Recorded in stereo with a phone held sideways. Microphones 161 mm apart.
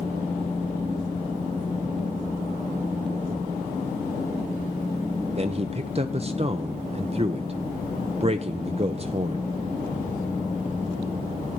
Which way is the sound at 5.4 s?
40° right (ahead or behind).